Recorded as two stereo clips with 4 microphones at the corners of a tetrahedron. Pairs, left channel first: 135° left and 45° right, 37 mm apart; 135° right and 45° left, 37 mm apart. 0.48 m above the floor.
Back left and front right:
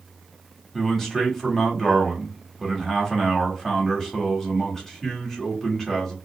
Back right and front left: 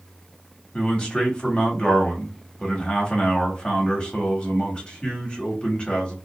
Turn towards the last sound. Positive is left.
turn(degrees=-160)